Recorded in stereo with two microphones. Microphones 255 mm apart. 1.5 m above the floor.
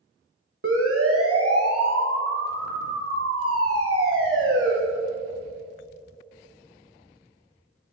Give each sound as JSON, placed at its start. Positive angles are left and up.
{"t": 0.6, "sound": "a siren", "side_deg": -55, "distance_m": 3.0}